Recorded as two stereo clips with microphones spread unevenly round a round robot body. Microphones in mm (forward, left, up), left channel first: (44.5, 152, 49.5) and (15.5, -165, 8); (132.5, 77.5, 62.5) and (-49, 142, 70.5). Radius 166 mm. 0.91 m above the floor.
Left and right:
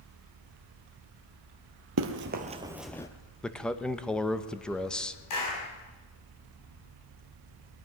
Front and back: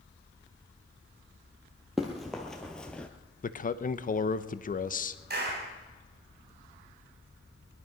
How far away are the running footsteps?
About 1.0 m.